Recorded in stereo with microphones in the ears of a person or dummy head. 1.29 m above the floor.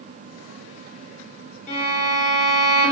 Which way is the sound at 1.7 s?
40° left (ahead or behind).